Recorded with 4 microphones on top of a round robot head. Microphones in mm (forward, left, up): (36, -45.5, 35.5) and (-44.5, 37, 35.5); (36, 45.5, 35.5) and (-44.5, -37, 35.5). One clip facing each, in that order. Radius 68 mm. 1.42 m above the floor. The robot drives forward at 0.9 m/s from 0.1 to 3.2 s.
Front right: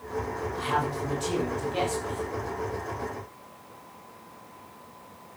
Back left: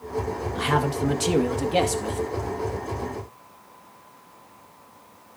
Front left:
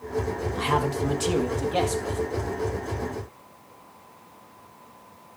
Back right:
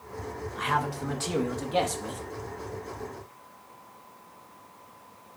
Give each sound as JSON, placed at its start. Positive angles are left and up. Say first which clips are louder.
{"t": 0.6, "sound": "a man speaking", "louder": "back left 5 dB, front left 3 dB", "azimuth_deg": 100, "distance_m": 1.5}